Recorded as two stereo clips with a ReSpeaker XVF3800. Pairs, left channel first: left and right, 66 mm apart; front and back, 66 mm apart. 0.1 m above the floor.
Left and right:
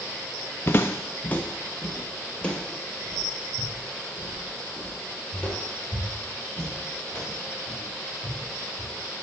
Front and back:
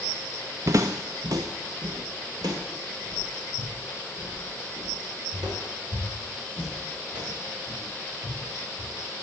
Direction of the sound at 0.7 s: 145° left.